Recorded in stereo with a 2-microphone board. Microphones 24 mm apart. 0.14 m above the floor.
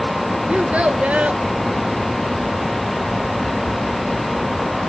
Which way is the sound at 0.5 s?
60° right (ahead or behind).